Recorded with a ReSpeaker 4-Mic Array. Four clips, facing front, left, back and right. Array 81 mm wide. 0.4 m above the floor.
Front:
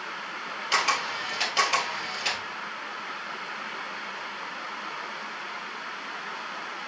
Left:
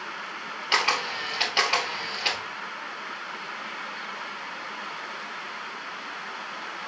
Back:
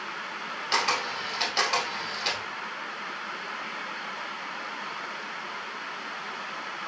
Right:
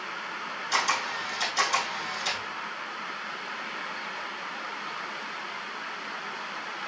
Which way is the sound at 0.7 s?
80° left.